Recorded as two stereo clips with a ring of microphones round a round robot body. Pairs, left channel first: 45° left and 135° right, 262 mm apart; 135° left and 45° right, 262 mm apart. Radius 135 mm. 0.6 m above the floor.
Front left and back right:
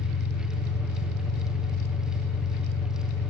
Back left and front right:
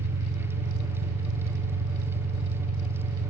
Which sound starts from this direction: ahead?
An engine running, at 0.0 s.